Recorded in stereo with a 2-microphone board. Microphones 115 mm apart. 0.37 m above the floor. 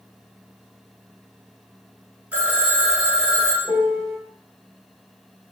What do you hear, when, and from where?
2.3 s a phone ringing: 10° right (ahead or behind), 0.7 m
3.6 s a piano: 45° left (ahead or behind), 0.6 m